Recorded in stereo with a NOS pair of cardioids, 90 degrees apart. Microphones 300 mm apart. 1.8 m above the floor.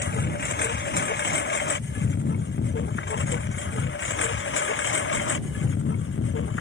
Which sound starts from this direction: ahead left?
A lawn mower, at 0.0 s.